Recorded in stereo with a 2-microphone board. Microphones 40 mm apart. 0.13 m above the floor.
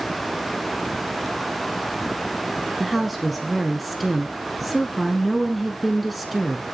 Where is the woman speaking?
Centre (ahead or behind), 1.5 m.